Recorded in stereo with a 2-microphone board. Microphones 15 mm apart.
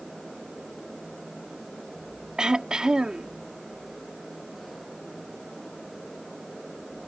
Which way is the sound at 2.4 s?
65° right (ahead or behind).